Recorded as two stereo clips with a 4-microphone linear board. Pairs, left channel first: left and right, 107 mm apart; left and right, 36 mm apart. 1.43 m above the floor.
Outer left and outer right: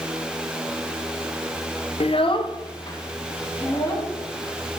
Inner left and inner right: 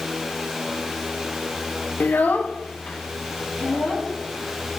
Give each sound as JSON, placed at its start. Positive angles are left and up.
{"t": 2.0, "sound": "a child speaking", "side_deg": 65, "distance_m": 0.6}